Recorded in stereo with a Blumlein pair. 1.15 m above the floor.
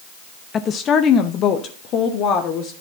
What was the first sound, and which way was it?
A woman speaking, 25° left.